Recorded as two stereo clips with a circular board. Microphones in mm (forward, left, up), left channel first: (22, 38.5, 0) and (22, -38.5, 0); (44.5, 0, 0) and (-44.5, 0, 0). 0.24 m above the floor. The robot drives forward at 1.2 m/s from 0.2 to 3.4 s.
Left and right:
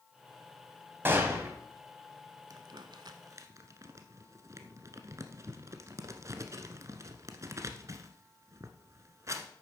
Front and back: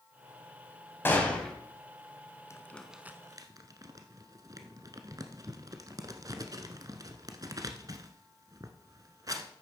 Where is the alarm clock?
No alarm clock in this recording.